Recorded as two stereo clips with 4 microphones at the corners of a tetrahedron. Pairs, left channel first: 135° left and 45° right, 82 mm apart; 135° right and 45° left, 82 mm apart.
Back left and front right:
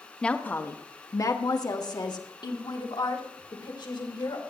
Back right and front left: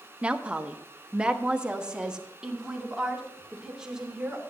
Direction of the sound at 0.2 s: 90° left.